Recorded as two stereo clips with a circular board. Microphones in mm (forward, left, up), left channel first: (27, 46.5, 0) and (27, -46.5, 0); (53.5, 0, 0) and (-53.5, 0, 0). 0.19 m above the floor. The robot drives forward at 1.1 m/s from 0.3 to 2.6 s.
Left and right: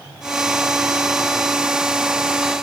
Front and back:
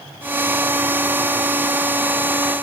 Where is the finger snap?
I don't hear a finger snap.